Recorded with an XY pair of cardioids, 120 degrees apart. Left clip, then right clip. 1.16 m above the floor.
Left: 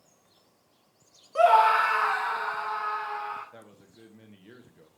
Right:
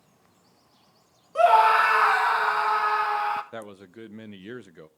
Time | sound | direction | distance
1.4 | a scream | 10° right | 0.7 m
3.5 | a man speaking | 70° right | 0.6 m